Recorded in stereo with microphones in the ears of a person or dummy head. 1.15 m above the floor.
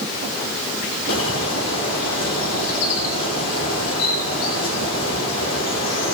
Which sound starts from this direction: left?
A bird, at 1.1 s.